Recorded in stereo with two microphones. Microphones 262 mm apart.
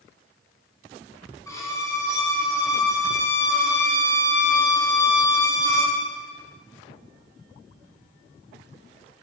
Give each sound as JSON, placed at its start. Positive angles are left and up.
{"t": 1.5, "sound": "a violin", "side_deg": 10, "distance_m": 4.5}